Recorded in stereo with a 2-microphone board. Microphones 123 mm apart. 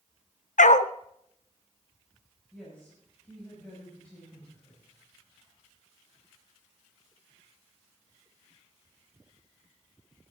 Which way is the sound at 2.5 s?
10° left (ahead or behind).